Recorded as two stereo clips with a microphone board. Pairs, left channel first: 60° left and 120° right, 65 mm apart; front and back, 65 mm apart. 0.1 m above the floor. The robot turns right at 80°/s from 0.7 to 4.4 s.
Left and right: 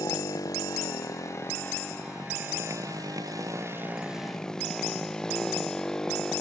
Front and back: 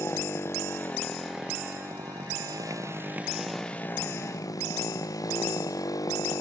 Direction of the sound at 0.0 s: 45° left.